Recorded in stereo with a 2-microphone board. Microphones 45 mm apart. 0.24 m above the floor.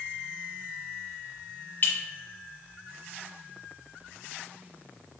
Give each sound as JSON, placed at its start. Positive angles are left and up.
{"t": 1.8, "sound": "a clink", "side_deg": 45, "distance_m": 1.1}